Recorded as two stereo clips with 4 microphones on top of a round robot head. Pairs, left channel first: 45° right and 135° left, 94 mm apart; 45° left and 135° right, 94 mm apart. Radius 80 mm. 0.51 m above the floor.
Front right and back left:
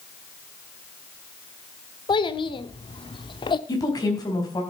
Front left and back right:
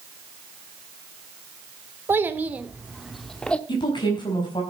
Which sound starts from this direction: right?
A child speaking, at 2.1 s.